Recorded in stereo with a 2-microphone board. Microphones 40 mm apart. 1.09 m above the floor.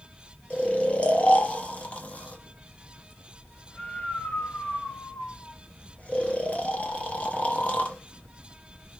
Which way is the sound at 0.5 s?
30° left (ahead or behind).